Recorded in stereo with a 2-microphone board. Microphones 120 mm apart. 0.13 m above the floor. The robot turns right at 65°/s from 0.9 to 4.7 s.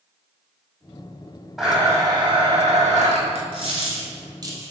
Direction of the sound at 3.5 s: 45° right (ahead or behind).